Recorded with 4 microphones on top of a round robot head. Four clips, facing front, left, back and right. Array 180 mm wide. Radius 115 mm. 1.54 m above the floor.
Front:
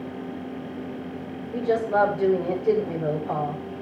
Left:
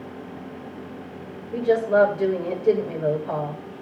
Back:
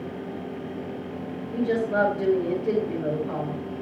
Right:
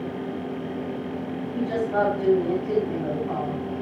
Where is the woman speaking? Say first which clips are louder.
Left 6 dB, front 2 dB; 85° left, 7.5 m.